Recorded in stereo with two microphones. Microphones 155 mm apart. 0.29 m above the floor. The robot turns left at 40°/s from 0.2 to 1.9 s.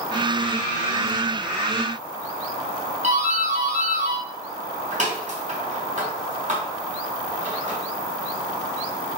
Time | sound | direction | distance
3.0 | a doorbell | 50° right (ahead or behind) | 3 m